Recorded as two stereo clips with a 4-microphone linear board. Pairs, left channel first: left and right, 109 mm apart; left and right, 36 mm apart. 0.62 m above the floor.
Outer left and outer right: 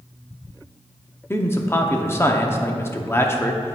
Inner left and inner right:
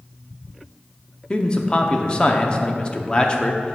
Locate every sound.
1.3 s a man speaking: 20° left (ahead or behind), 0.8 m